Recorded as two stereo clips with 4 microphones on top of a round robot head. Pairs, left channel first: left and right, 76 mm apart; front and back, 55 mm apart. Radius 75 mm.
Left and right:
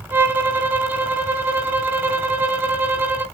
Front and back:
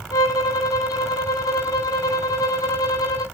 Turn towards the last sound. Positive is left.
turn(degrees=-25)